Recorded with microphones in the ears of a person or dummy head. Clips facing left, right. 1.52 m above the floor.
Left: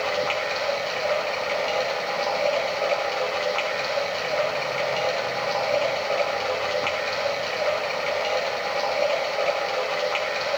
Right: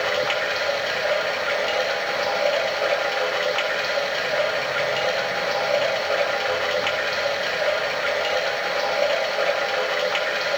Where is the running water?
20° right (ahead or behind), 1.3 m.